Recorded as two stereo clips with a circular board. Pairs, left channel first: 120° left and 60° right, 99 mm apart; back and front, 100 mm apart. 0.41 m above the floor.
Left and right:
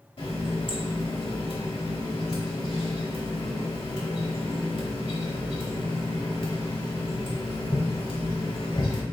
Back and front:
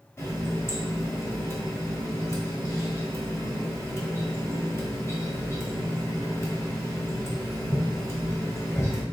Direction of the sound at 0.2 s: 120° left.